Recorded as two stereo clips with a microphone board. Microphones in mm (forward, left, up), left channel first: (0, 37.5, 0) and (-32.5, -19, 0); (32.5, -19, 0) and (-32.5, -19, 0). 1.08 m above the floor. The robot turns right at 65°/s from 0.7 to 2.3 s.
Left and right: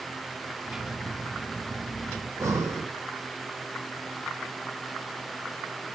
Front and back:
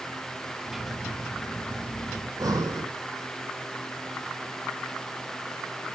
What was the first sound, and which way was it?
Breathing, 165° right.